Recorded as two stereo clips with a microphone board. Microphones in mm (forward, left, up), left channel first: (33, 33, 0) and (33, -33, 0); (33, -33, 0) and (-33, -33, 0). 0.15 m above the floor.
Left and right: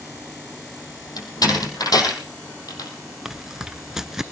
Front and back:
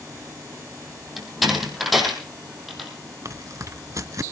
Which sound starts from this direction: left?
A door slam, at 1.2 s.